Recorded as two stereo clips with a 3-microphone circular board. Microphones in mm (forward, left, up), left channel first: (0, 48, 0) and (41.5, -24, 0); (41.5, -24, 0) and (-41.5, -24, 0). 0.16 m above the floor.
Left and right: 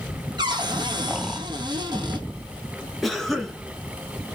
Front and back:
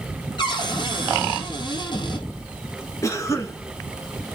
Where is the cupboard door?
25° right, 1.9 m.